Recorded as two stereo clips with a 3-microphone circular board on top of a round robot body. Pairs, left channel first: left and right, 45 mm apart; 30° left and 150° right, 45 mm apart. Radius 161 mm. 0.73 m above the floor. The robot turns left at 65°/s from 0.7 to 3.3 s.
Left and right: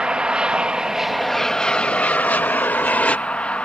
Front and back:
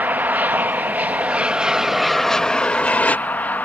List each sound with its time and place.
0.0 s an aircraft: 150° right; by 3.7 s 45° left